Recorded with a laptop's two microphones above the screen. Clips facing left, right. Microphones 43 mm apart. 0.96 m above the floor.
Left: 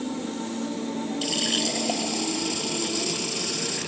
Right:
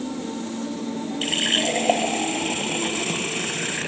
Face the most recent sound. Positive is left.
turn(degrees=-40)  # may be behind; listen again after turning